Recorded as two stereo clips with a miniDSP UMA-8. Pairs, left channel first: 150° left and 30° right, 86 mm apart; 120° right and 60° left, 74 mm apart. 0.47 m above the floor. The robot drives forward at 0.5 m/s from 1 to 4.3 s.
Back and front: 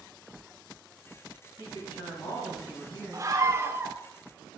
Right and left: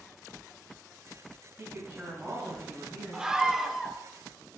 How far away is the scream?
About 1.0 m.